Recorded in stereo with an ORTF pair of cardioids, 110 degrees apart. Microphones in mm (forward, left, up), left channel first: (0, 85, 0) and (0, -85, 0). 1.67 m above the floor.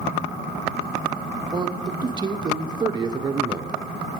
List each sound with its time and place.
1.5 s a man speaking: 25° right, 0.9 m